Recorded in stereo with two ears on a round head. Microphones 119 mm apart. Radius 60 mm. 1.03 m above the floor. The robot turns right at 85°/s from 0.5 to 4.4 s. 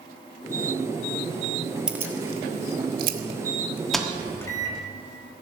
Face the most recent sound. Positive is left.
turn(degrees=20)  # may be behind; listen again after turning